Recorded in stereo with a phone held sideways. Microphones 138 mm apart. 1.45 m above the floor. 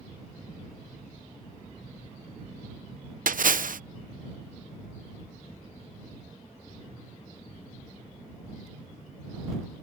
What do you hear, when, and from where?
3.3 s a splash: 70° right (ahead or behind)